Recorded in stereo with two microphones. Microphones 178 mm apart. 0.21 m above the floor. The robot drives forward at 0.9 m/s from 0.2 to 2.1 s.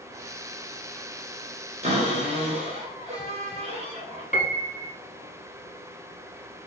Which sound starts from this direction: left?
A piano, at 4.3 s.